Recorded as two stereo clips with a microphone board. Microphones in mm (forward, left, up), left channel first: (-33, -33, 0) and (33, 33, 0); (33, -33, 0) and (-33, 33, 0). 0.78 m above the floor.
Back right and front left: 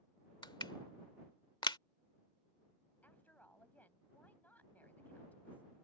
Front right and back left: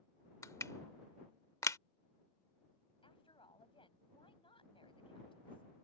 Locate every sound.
0.4 s crushing: 100° right
3.0 s a woman speaking: 60° right